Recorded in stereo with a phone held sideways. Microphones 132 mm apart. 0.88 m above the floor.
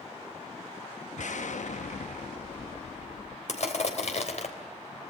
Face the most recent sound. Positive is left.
turn(degrees=65)  # may be behind; listen again after turning